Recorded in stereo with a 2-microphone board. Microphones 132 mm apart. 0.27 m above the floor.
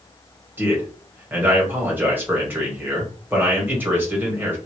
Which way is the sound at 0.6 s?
15° right (ahead or behind).